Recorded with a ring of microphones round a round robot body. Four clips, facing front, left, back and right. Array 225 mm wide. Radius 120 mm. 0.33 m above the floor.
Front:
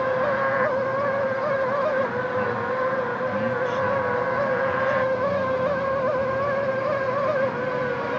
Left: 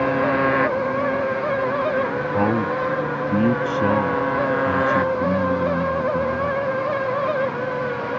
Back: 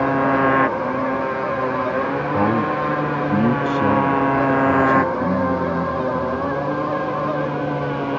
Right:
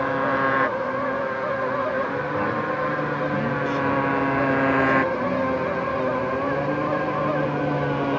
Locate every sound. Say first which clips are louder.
0.0 s a motorcycle: left 3 dB, back 5 dB; 165° left; by 8.2 s 135° right
2.3 s a man speaking: left 6 dB, back 8 dB; 140° left